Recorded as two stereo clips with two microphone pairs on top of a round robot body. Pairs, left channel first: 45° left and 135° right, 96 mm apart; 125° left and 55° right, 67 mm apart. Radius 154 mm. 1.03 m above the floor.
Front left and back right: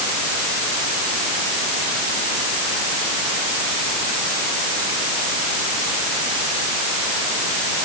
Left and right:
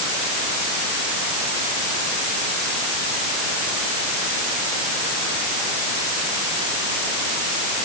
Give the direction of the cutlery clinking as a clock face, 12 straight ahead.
I don't hear cutlery clinking.